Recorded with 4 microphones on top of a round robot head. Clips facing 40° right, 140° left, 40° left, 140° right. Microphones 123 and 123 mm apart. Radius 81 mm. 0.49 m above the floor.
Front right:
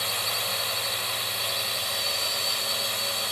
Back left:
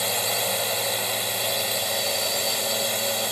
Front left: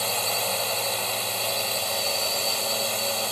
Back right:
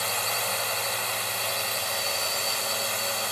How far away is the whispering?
I don't hear whispering.